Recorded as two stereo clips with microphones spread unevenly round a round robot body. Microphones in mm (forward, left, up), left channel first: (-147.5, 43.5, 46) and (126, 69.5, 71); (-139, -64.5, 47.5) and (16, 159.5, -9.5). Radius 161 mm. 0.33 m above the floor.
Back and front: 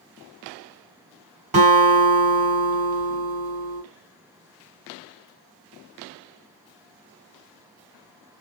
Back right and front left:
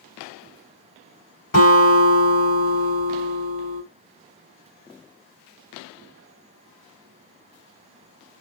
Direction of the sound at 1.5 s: 55° right.